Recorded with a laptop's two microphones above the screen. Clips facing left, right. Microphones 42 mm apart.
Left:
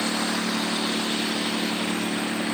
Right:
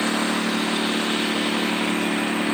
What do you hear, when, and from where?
0.0 s a lawn mower: 30° right (ahead or behind); by 2.5 s 35° right (ahead or behind)